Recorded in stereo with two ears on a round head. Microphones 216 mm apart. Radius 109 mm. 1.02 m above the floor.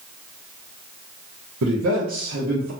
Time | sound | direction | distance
1.6 | a man speaking | 60° right (ahead or behind) | 0.6 m